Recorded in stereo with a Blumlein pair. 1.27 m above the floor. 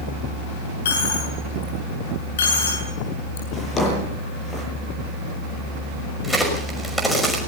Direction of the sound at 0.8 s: 60° left.